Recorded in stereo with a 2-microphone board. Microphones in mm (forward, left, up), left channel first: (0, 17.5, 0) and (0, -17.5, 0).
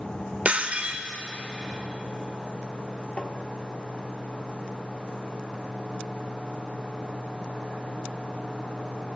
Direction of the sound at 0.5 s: 35° right (ahead or behind).